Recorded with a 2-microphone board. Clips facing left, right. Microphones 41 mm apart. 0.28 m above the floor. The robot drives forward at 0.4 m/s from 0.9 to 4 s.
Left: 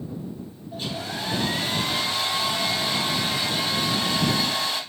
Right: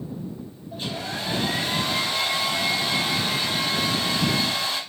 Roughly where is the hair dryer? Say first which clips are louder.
Even; centre.